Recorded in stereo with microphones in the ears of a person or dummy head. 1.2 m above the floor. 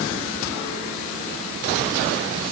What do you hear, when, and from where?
Only background noise.